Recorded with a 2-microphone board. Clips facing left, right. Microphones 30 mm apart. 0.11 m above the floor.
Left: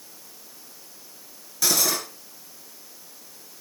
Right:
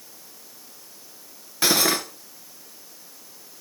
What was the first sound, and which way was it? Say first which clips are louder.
Cutlery clinking: right 3 dB; 35° right (ahead or behind).